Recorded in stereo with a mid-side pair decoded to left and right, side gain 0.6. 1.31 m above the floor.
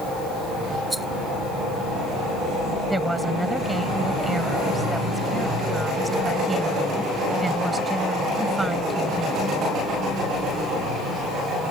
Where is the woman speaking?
10° right.